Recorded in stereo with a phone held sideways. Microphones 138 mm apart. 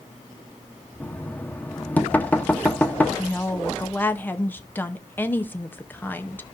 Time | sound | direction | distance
1.0 | knocking | 10° left (ahead or behind) | 0.8 m
3.2 | a woman speaking | 15° left (ahead or behind) | 0.6 m